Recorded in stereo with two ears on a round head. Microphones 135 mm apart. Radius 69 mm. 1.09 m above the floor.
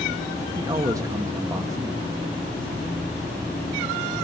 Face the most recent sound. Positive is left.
turn(degrees=-20)  # may be behind; listen again after turning